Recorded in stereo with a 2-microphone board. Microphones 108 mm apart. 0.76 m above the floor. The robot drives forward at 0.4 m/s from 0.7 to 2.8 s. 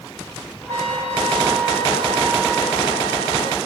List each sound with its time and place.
0.7 s a trumpet: 90° right, 3 m; by 3.6 s 75° right (ahead or behind), 3 m